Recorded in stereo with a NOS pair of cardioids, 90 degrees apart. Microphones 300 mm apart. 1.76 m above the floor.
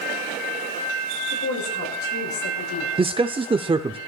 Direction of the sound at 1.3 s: 70° left.